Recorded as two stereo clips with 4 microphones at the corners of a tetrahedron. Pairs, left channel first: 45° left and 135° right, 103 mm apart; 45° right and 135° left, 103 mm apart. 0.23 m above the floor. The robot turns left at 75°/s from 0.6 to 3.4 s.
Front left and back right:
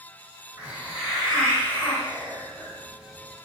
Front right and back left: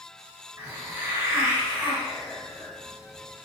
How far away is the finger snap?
I don't hear a finger snap.